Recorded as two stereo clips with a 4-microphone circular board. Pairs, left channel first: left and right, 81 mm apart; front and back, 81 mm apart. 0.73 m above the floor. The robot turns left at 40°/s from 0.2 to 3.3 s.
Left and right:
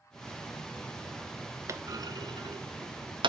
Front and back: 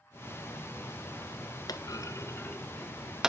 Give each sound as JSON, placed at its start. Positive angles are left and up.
{"t": 1.7, "sound": "a clunk", "azimuth_deg": -35, "distance_m": 0.6}